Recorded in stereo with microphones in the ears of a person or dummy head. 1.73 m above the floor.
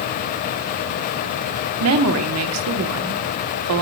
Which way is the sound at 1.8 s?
80° right.